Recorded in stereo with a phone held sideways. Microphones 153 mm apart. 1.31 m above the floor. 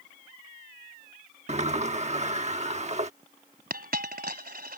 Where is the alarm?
No alarm in this recording.